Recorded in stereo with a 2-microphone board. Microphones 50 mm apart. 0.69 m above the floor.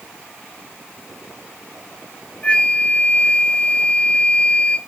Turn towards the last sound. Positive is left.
turn(degrees=30)  # may be behind; listen again after turning